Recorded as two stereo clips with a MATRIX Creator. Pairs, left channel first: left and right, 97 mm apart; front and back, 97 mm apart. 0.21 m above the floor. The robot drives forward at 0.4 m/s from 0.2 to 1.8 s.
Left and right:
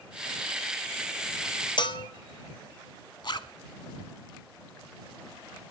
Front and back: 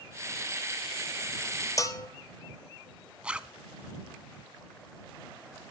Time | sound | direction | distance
1.8 | a bell | 55° left | 0.8 m
3.2 | a zipper | 105° left | 0.6 m